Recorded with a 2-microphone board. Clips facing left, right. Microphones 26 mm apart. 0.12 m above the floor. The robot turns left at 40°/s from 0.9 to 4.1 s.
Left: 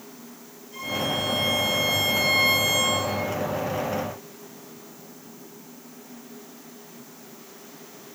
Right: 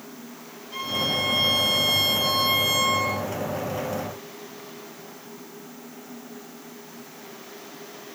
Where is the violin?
65° right, 4 m; by 3.2 s 160° right, 4 m.